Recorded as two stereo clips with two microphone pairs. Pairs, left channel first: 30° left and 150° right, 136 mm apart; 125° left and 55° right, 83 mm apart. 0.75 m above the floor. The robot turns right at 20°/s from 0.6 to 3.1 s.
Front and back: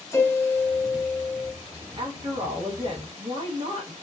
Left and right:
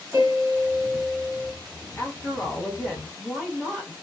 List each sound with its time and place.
0.1 s a piano: 25° right, 0.7 m; by 1.5 s 10° right, 0.7 m
2.0 s a woman speaking: 170° left, 0.6 m; by 3.9 s 165° right, 0.6 m